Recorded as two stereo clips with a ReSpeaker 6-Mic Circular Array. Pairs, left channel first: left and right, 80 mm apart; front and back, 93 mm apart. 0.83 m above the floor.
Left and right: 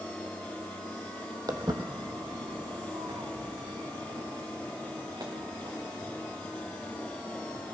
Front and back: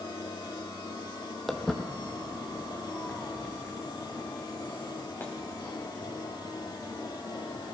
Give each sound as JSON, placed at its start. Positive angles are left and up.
{"t": 1.5, "sound": "footsteps", "azimuth_deg": -90, "distance_m": 1.2}